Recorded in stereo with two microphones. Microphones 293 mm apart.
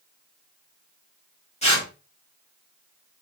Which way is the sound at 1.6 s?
20° left (ahead or behind).